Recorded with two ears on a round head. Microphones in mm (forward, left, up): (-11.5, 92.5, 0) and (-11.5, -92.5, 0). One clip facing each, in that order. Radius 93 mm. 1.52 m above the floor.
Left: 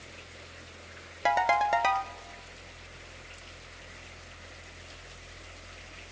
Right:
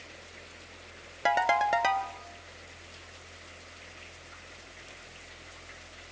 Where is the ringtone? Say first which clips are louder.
Even; 5° right (ahead or behind), 1.1 m.